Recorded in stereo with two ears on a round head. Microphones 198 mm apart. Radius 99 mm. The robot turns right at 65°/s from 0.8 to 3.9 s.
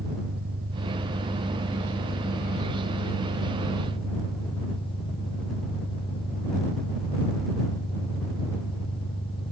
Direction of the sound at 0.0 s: 45° right.